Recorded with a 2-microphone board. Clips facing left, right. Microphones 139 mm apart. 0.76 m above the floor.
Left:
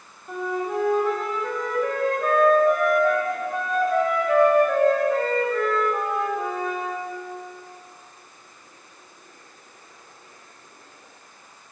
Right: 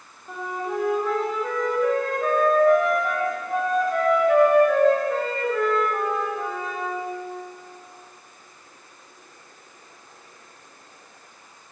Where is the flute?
Centre (ahead or behind), 1.1 m.